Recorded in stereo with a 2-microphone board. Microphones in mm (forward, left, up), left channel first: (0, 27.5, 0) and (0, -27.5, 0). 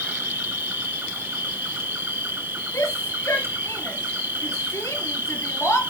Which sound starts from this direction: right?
An insect, at 0.0 s.